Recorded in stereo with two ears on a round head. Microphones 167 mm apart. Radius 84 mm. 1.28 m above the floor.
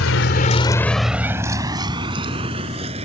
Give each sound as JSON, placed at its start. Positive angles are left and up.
{"t": 0.0, "sound": "a vehicle", "side_deg": 80}